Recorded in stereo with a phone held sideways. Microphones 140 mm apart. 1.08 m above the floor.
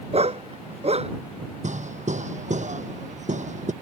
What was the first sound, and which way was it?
A dog barking, 50° right (ahead or behind).